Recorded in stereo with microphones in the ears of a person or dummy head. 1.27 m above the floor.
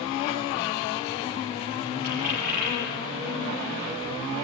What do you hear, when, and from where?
2.0 s a dropped coin: 55° right (ahead or behind), 6.5 m